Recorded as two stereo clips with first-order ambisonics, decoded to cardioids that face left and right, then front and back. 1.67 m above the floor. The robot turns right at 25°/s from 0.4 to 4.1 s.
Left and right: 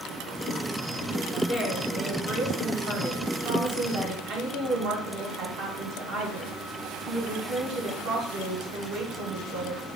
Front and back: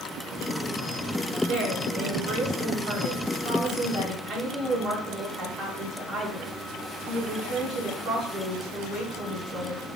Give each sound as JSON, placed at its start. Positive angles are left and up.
{"t": 1.5, "sound": "a woman speaking", "azimuth_deg": 175, "distance_m": 1.5}